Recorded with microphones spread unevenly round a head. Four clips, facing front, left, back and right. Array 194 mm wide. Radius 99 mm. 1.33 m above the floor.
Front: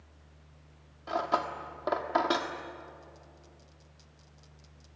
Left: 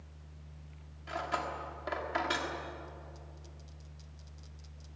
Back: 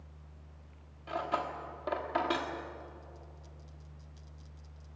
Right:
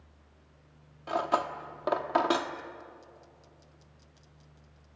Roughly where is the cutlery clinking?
Ahead right.